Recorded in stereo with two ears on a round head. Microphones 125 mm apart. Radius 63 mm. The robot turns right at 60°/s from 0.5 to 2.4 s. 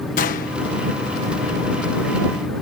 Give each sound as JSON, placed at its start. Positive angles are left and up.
{"t": 0.2, "sound": "a gunshot", "side_deg": 65}